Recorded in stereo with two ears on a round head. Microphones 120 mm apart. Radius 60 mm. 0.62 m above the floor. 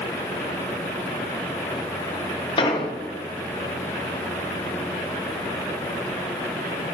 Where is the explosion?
40° left (ahead or behind), 1.1 m.